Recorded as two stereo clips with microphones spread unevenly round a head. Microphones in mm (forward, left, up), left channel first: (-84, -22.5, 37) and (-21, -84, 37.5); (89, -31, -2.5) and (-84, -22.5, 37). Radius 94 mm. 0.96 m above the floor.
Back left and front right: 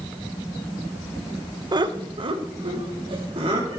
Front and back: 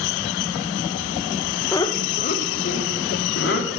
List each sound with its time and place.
1.7 s laughter: 65° right, 0.7 m; by 3.8 s 15° right, 2.5 m